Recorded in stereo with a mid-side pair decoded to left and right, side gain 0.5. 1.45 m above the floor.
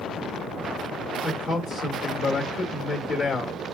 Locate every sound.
1.2 s a man speaking: 55° left, 1.3 m